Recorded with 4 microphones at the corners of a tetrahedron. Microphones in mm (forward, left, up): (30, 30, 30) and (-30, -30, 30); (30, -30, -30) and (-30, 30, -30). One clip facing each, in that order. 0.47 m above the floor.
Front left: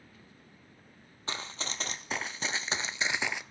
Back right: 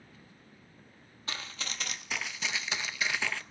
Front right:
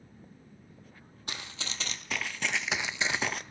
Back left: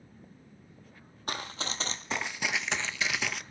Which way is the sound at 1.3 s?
100° left.